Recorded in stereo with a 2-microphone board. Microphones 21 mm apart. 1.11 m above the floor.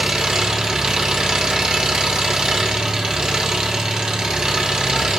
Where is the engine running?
30° right (ahead or behind), 1.4 m.